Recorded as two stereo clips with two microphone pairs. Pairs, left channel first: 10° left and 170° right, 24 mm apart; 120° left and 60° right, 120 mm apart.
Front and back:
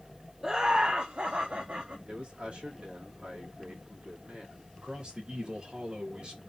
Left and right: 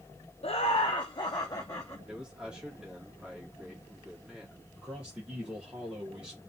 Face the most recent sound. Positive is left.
turn(degrees=-140)